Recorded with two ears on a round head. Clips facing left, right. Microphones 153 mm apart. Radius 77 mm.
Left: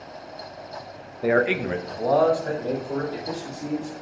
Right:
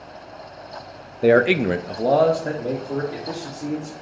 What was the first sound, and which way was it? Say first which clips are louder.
A man speaking: right 6 dB; 35° right (ahead or behind).